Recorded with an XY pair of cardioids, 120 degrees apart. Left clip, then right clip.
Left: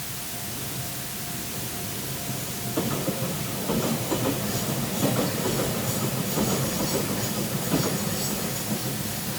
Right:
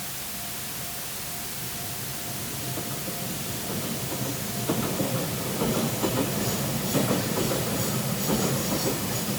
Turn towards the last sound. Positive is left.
No sound to turn to.